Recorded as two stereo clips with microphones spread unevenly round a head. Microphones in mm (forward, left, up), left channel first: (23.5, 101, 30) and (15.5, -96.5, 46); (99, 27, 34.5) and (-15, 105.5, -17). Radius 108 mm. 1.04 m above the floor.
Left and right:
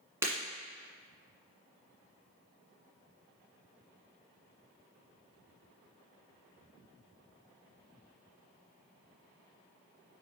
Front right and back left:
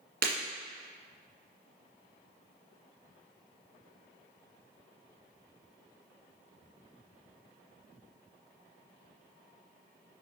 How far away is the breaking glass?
About 1.7 m.